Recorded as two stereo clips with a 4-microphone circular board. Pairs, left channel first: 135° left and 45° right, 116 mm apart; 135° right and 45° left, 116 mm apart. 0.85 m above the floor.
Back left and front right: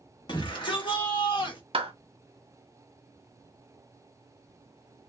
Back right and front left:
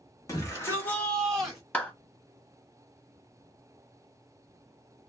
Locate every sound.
0.3 s a shout: 175° left, 1.4 m; by 1.6 s 125° left, 1.1 m
1.7 s a clap: 60° right, 0.9 m